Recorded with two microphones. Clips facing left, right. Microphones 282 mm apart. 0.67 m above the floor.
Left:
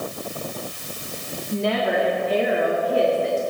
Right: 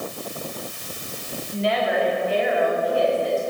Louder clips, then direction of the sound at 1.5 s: Left 1 dB; 50° left (ahead or behind).